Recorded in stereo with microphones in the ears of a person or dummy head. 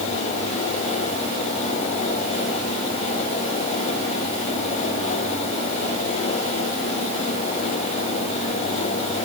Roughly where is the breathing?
No breathing in this recording.